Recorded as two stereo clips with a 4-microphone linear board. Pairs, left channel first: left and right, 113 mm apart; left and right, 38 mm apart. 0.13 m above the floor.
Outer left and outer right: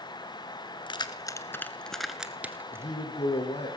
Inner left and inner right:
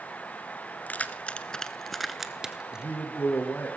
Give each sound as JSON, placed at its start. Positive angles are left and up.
{"t": 0.9, "sound": "keys jangling", "side_deg": 45, "distance_m": 1.0}
{"t": 2.7, "sound": "a man speaking", "side_deg": 70, "distance_m": 5.0}